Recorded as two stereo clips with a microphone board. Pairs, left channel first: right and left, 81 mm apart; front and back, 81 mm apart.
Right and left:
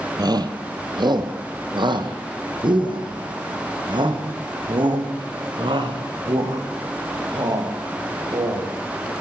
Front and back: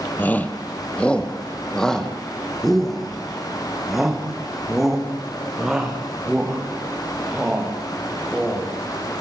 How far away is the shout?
About 2.5 m.